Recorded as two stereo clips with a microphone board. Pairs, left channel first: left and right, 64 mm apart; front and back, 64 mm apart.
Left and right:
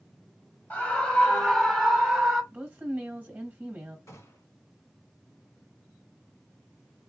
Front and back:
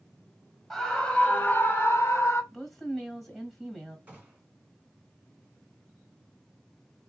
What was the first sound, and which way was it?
A scream, 75° left.